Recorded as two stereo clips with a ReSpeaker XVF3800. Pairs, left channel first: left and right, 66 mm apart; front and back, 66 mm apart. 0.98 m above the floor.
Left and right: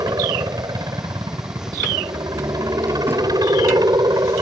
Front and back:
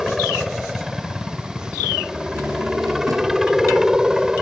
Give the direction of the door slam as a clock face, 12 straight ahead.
5 o'clock.